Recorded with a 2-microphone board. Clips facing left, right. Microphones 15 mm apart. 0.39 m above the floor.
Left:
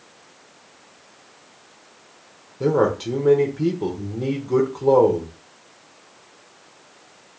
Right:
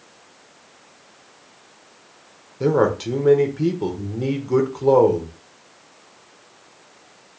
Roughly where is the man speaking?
Centre.